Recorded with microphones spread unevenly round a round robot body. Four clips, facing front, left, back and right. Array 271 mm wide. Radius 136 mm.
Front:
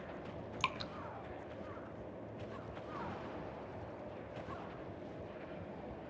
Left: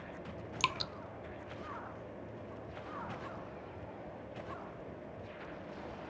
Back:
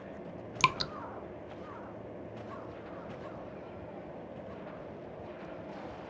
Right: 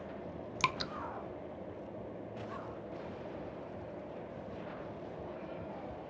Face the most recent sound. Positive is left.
turn(degrees=-170)